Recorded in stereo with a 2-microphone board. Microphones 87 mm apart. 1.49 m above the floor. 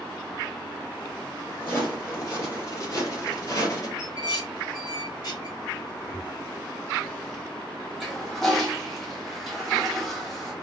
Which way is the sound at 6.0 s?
20° right (ahead or behind).